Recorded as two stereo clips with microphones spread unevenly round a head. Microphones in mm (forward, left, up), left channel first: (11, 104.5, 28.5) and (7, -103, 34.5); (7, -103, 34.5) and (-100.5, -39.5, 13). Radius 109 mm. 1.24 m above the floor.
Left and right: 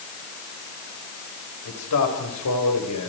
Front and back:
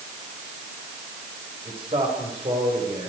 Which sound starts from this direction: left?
A man speaking, at 1.6 s.